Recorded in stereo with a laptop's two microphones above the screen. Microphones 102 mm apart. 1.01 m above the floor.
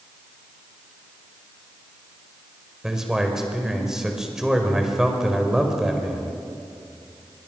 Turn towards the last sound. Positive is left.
turn(degrees=-5)  # may be behind; listen again after turning